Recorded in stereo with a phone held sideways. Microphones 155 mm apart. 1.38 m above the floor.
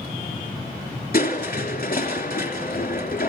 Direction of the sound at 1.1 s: 60° left (ahead or behind).